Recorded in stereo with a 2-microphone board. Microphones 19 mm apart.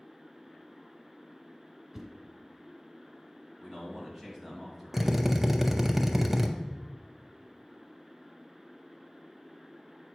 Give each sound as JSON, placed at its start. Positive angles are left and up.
{"t": 1.9, "sound": "a whoosh", "side_deg": -15, "distance_m": 1.3}
{"t": 3.6, "sound": "a man speaking", "side_deg": -15, "distance_m": 2.0}
{"t": 4.9, "sound": "a drill", "side_deg": -15, "distance_m": 0.6}